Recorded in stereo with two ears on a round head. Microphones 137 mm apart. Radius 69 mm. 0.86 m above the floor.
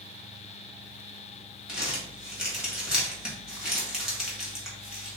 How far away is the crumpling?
About 1.3 m.